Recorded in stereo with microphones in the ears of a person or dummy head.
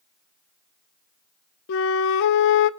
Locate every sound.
1.7 s a flute: 55° left (ahead or behind), 0.5 m